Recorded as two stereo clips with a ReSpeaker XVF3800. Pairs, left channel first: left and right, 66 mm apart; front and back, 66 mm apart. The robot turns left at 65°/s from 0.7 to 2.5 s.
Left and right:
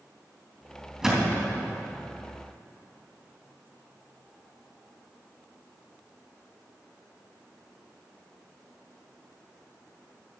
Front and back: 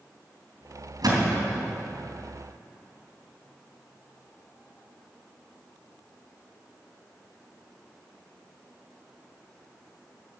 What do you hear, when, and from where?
1.0 s a thud: 170° right, 3 m; by 1.7 s 145° left, 3 m